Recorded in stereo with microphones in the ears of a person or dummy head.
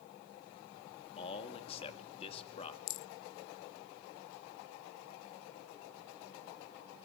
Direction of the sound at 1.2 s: 35° left (ahead or behind).